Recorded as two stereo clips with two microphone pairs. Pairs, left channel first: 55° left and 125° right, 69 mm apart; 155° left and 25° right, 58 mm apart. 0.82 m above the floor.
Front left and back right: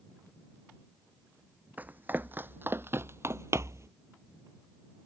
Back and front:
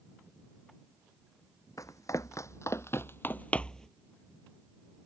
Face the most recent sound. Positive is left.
turn(degrees=-120)